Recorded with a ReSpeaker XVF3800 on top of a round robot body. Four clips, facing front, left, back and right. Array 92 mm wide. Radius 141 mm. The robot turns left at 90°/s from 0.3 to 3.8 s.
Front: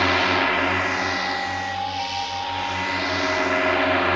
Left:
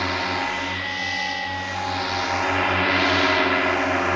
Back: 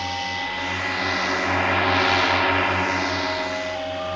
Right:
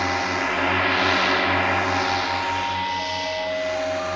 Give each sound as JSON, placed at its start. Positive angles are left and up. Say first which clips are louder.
{"t": 0.0, "sound": "a drone", "louder": "right 1 dB, front 8 dB", "azimuth_deg": -15}